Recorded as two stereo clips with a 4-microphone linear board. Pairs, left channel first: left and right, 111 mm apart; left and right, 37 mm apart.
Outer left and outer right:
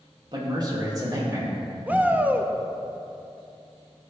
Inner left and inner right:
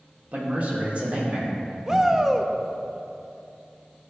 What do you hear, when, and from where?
0.3 s a man speaking: 45° right (ahead or behind), 2.5 m; by 1.6 s 30° right (ahead or behind), 3.5 m
1.9 s a shout: 15° right (ahead or behind), 0.9 m